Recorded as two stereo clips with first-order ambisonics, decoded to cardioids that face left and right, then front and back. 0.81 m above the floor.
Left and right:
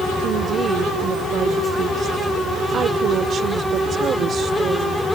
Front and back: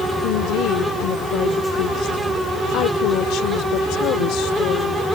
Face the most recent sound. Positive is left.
turn(degrees=-30)